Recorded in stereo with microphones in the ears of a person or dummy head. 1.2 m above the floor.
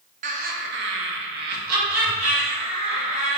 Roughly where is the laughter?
Right.